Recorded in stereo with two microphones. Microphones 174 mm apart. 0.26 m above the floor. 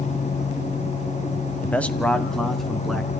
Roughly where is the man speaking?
Centre.